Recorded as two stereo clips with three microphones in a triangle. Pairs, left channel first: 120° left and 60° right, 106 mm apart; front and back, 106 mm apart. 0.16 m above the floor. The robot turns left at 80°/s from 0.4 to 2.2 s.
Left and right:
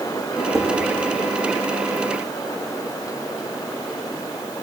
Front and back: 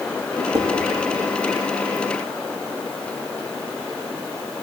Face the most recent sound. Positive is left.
turn(degrees=105)